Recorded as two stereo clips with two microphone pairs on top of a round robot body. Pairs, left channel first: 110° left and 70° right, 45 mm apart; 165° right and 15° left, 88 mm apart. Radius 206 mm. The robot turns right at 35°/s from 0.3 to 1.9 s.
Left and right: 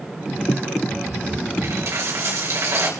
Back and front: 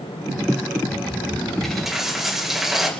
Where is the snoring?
No snoring in this recording.